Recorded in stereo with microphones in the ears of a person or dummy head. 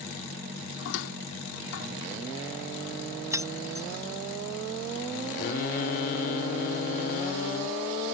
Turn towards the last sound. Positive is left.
turn(degrees=50)  # may be behind; listen again after turning